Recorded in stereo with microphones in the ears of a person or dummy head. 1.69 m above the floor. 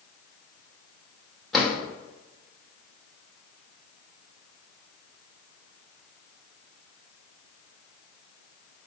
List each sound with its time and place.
1.5 s a drawer: centre (ahead or behind), 1.7 m